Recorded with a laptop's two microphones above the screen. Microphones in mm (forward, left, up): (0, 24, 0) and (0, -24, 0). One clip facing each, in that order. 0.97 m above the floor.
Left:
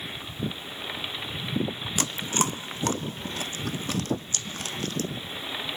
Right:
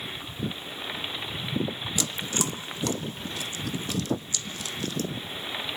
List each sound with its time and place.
2.0 s chewing: 45° left (ahead or behind), 0.7 m